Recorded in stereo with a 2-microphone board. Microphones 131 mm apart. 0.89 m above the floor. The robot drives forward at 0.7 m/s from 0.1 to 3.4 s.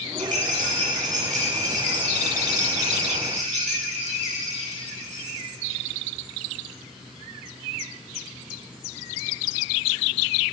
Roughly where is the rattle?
Right.